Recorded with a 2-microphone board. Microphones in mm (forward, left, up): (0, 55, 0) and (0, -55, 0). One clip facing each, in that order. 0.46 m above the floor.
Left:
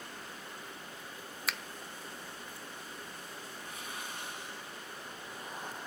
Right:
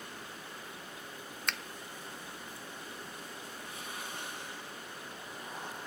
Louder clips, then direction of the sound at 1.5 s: Even; 5° left (ahead or behind).